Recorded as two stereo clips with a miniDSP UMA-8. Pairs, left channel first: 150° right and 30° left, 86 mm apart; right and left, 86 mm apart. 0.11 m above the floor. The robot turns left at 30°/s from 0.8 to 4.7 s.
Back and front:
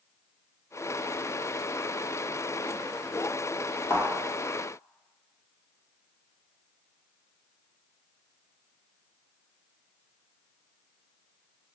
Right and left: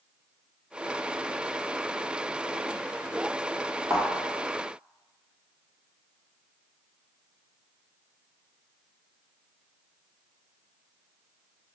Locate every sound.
3.9 s a thud: 145° left, 1.9 m; by 4.1 s 140° left, 1.9 m